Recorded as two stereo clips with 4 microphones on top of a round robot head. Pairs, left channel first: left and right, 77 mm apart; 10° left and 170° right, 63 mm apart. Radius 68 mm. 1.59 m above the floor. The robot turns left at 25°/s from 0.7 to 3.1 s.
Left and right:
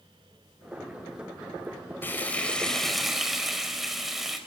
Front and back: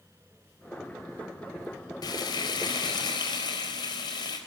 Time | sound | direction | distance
2.0 | frying | 25° left | 4 m